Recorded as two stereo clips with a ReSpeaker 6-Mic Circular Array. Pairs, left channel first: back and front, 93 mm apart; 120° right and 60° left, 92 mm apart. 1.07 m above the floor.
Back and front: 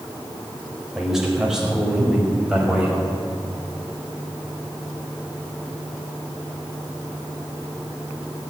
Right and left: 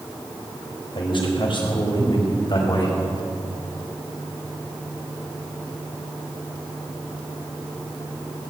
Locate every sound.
0.9 s a man speaking: 85° right, 4 m; by 2.9 s 80° right, 5 m